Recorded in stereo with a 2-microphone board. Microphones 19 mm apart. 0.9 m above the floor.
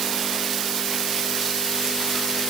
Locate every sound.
Only background noise.